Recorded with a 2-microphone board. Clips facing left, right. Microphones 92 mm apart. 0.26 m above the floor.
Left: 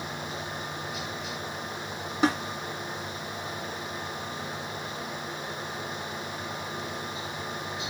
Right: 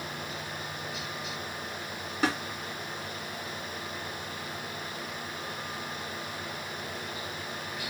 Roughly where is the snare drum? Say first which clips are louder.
Left 4 dB; centre.